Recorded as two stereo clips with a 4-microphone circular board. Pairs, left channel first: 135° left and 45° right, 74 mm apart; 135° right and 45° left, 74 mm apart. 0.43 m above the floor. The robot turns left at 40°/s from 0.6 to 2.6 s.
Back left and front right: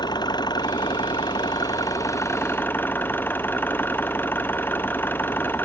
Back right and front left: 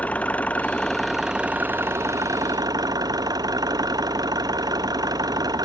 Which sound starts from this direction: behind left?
An engine running, at 0.0 s.